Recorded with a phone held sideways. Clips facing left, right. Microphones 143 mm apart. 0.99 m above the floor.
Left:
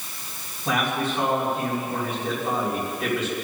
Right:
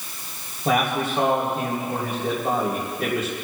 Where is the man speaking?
55° right (ahead or behind), 3.5 m.